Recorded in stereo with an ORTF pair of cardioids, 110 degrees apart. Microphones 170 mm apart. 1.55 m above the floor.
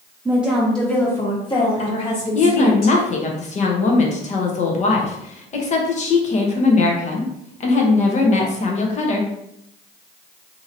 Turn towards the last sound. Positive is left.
turn(degrees=45)